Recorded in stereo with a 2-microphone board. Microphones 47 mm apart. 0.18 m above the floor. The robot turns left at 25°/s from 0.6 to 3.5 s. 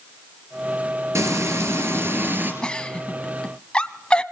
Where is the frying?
105° right, 3.5 m; by 2.5 s 140° right, 3.5 m.